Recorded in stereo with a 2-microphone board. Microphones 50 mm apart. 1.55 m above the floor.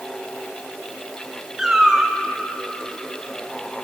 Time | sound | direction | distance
1.6 | a cat meowing | 5° right (ahead or behind) | 1.5 m